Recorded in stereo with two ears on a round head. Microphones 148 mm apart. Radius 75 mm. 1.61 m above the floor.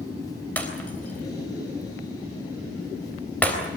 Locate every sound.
0.6 s breaking glass: 10° left (ahead or behind), 4 m